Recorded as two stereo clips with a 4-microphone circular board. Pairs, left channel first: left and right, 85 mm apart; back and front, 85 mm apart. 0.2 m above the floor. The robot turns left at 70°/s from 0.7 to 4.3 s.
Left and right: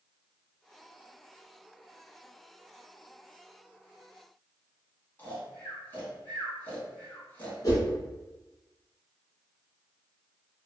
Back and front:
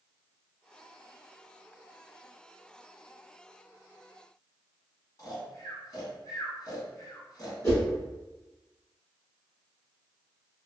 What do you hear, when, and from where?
5.2 s snoring: 150° left, 1.1 m
7.6 s a whoosh: 130° left, 1.5 m